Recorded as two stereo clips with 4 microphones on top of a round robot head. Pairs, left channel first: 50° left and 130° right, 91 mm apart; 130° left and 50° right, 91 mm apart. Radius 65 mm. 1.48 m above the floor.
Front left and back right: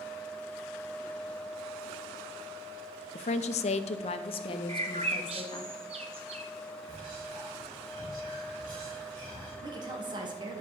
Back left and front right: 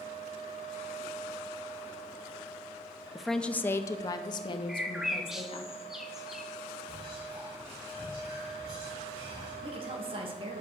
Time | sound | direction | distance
3.1 | a woman speaking | 35° left | 0.6 m
4.7 | a bird | 135° right | 0.6 m
6.9 | whispering | 90° right | 4 m
9.6 | a woman speaking | 85° right | 1.9 m